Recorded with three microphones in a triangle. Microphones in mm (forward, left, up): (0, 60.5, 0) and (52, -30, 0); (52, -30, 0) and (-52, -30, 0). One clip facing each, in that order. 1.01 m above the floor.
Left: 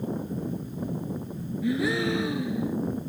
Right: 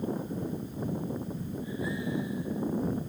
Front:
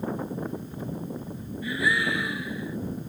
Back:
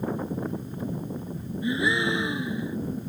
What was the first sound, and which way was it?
A gasp, 115° left.